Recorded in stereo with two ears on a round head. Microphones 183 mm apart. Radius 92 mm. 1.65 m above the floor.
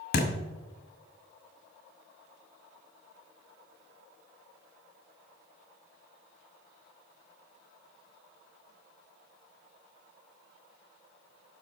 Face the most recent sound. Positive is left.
turn(degrees=40)  # may be behind; listen again after turning